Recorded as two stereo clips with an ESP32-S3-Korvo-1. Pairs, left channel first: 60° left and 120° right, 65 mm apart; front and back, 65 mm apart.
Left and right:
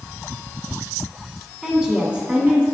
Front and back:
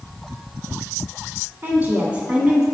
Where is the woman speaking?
165° left, 1.5 m; by 2.6 s 110° right, 1.3 m.